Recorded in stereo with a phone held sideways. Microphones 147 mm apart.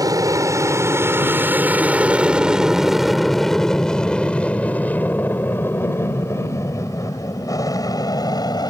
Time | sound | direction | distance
0.0 | an aircraft | 25° right (ahead or behind) | ?